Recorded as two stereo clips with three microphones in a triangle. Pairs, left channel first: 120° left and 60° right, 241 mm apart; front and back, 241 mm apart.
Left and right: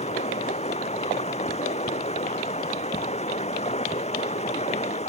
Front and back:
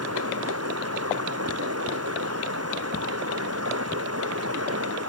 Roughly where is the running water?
Behind.